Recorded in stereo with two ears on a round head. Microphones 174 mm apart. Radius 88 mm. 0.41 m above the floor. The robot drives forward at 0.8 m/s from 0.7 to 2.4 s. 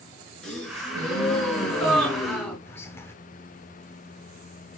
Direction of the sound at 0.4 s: 5° left (ahead or behind).